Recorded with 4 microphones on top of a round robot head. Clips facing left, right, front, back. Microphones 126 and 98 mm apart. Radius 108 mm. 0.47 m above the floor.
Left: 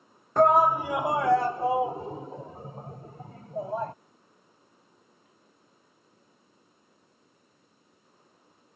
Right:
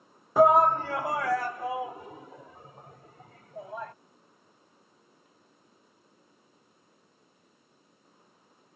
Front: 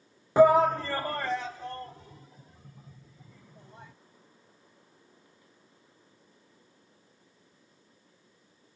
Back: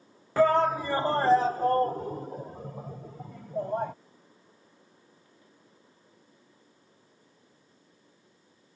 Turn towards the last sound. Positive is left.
turn(degrees=150)